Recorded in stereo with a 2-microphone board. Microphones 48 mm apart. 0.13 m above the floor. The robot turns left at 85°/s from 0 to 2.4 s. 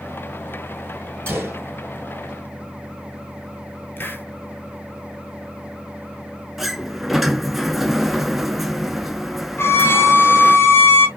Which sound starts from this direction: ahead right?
A gunshot, at 1.3 s.